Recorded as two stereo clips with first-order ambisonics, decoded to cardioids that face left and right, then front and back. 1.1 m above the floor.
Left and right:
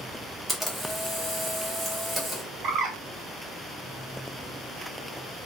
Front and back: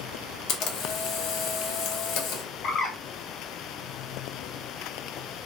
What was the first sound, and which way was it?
A camera shutter, 5° left.